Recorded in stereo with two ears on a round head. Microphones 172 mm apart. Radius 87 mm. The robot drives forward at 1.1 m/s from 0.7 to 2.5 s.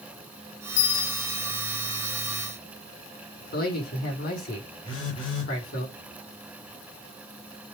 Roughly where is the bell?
Left.